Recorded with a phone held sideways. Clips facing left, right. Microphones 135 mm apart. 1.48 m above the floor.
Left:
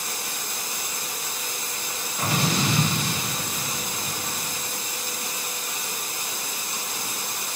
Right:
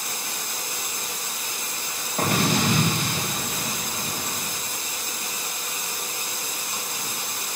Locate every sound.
2.2 s an explosion: 55° right (ahead or behind), 2.5 m